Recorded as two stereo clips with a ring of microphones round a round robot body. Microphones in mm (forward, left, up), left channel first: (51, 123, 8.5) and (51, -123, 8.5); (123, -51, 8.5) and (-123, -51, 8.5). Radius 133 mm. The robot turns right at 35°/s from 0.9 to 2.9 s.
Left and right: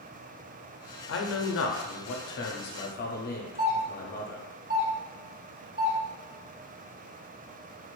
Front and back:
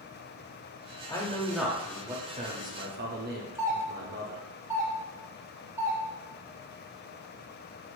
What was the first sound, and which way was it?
A man speaking, 75° left.